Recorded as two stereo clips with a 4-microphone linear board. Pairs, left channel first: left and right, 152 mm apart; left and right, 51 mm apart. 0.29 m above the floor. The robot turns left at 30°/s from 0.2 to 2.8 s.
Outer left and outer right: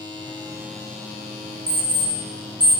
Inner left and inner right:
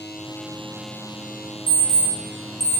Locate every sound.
1.7 s an alarm clock: 35° left (ahead or behind), 1.9 m; by 2.8 s centre (ahead or behind), 1.9 m